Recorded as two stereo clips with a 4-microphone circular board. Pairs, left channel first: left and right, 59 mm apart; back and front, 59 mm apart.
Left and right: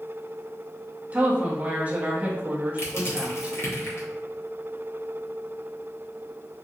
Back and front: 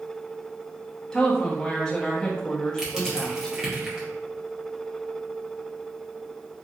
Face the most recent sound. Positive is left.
turn(degrees=75)